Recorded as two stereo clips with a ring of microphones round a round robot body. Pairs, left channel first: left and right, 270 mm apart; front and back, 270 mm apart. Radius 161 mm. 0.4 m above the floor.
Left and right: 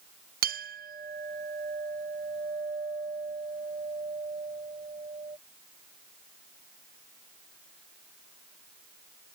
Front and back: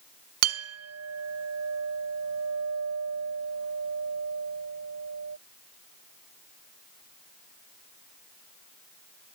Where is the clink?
150° right.